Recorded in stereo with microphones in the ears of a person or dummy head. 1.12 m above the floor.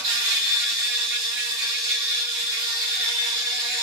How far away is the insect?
About 1.4 m.